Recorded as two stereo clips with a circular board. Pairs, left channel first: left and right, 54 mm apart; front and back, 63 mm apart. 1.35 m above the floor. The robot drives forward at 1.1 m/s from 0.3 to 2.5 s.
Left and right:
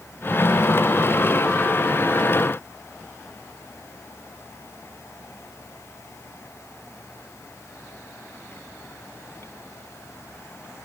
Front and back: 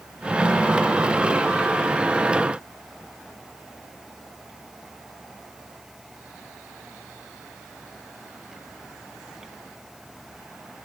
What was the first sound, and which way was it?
Only background noise.